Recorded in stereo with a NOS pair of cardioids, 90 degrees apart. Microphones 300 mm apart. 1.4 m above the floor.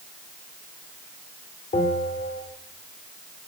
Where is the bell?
30° left, 2.5 m.